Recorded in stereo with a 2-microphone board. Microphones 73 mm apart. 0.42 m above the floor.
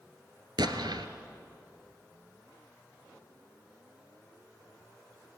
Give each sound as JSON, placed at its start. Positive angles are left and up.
{"t": 0.6, "sound": "an explosion", "side_deg": -75, "distance_m": 1.4}